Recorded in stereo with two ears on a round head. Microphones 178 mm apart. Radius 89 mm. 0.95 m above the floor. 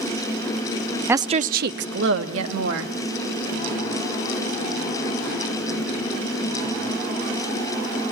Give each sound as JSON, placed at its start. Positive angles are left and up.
{"t": 1.1, "sound": "a woman speaking", "side_deg": -10, "distance_m": 0.5}